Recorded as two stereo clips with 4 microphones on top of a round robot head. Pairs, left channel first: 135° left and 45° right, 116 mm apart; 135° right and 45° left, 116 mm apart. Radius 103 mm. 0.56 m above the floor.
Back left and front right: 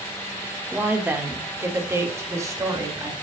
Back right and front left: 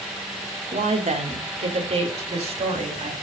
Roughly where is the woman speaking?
Ahead left.